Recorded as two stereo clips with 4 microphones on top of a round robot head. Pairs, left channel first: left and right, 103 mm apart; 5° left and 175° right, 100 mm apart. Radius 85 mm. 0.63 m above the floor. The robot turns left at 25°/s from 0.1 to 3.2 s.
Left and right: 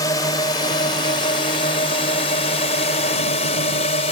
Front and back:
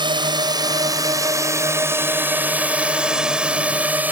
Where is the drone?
150° left; by 4.1 s 115° left.